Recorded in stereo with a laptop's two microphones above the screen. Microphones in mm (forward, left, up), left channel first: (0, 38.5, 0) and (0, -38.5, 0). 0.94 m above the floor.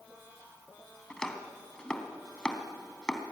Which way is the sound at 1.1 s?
10° left (ahead or behind).